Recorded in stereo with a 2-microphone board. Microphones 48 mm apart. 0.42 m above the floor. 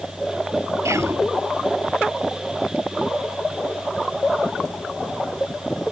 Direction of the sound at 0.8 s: 75° right (ahead or behind).